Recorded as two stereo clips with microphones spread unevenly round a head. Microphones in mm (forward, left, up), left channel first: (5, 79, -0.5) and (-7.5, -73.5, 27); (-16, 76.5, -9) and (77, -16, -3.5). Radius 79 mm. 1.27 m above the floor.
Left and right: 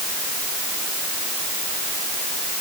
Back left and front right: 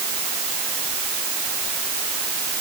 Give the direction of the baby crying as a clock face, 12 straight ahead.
I don't hear a baby crying.